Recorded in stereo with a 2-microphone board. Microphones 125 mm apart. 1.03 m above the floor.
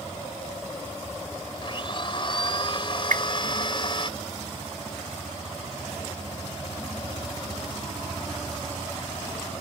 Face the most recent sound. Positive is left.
turn(degrees=-85)